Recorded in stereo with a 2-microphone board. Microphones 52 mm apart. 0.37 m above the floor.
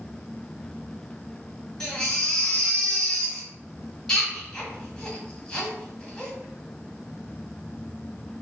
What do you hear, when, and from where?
1.8 s a baby crying: 15° left (ahead or behind), 1.4 m